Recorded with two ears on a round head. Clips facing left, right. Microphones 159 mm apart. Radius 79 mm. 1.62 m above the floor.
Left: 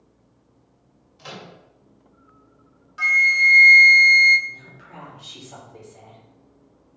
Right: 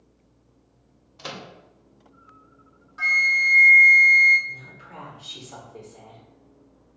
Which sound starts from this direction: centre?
A woman speaking, at 4.5 s.